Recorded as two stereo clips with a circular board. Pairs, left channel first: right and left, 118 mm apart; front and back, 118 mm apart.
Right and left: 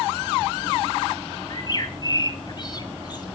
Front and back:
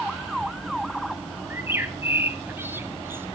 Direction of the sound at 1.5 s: 120° right.